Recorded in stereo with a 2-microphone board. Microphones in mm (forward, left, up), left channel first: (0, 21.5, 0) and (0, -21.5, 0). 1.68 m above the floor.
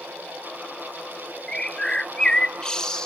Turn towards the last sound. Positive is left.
turn(degrees=15)  # may be behind; listen again after turning